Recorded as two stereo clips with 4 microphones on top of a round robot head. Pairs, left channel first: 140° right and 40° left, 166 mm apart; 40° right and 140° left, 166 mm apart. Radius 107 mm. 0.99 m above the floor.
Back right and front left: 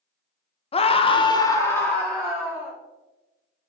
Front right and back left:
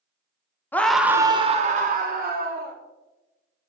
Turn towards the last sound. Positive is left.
turn(degrees=125)